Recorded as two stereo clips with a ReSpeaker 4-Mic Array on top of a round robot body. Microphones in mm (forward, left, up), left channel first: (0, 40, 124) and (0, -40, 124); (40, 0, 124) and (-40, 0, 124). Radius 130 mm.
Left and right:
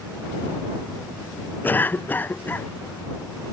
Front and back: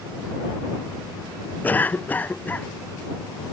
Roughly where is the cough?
Ahead left.